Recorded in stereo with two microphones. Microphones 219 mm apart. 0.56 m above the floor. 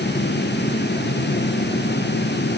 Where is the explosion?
No explosion in this recording.